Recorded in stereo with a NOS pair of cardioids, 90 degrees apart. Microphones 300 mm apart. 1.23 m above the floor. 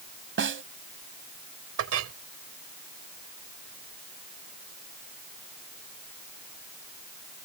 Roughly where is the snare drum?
Ahead right.